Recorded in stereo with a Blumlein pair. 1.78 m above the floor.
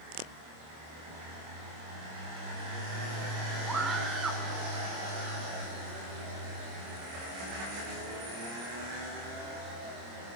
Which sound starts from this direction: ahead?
A scream, at 3.7 s.